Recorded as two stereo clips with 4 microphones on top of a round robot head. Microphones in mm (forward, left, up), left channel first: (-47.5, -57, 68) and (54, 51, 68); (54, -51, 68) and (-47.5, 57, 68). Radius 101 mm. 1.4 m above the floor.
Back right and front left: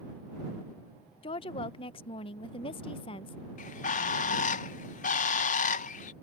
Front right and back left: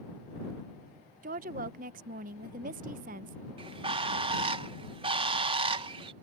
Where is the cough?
No cough in this recording.